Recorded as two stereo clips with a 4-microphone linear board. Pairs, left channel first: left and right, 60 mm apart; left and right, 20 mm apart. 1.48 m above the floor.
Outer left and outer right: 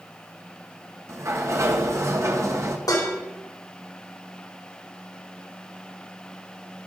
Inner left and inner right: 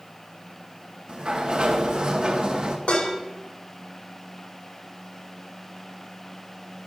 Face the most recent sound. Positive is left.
turn(degrees=80)